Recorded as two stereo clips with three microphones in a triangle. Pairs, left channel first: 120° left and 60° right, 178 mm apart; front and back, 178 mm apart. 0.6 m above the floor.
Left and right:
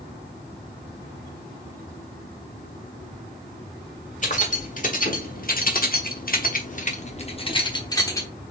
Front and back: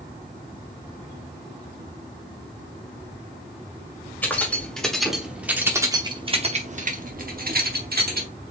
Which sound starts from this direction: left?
Keys jangling, at 4.2 s.